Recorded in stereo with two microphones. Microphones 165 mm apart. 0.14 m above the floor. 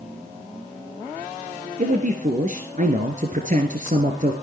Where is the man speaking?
50° right (ahead or behind), 2 m.